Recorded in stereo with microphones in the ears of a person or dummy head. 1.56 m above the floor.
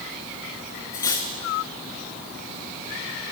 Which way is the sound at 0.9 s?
15° left (ahead or behind).